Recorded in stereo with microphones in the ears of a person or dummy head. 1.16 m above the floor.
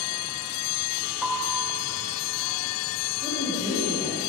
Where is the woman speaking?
15° left (ahead or behind), 2.5 m.